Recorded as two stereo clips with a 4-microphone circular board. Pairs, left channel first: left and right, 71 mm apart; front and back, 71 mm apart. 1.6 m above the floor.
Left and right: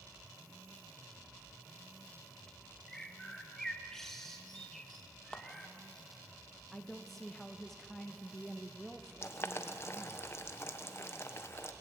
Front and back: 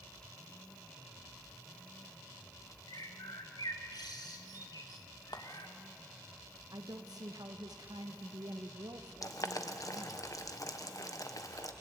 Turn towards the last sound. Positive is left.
turn(degrees=35)